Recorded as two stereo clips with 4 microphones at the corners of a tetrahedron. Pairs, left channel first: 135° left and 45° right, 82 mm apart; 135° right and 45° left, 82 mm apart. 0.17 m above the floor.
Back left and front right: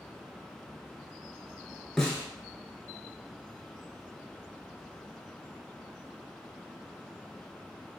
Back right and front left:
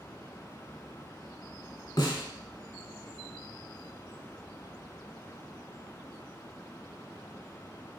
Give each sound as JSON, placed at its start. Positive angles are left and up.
{"t": 2.0, "sound": "a snare drum", "azimuth_deg": -145, "distance_m": 0.7}